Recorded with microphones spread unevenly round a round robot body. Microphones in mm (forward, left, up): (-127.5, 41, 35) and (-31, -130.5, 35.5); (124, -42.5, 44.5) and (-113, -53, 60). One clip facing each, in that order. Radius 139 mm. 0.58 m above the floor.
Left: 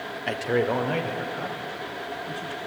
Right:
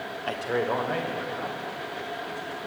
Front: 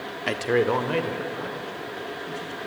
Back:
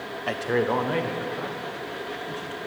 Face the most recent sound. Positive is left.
turn(degrees=60)